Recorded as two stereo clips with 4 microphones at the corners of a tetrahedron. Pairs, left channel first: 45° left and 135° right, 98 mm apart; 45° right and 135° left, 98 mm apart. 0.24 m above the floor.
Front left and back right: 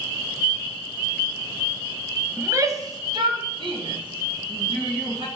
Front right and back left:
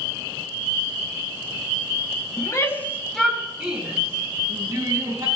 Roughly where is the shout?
Right.